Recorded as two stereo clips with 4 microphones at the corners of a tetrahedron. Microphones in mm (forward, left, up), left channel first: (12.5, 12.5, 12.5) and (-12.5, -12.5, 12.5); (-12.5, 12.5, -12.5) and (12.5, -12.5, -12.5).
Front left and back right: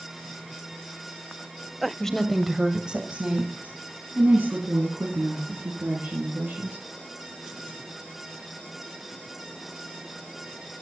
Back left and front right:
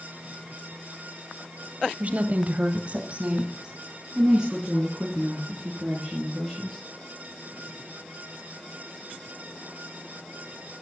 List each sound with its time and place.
2.0 s a woman speaking: 25° right, 1.6 m; by 6.8 s 125° right, 6 m